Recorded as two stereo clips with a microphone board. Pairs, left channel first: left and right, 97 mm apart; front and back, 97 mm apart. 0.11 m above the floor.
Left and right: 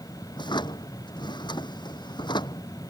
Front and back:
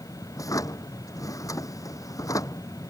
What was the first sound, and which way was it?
A drawer, 55° left.